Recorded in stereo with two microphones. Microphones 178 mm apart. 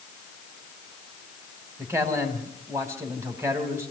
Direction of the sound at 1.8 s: 15° right (ahead or behind).